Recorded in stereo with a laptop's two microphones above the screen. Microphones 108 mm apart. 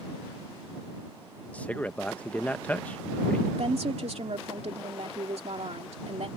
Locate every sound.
1.5 s a man speaking: 15° left (ahead or behind)
3.6 s a woman speaking: 75° right (ahead or behind)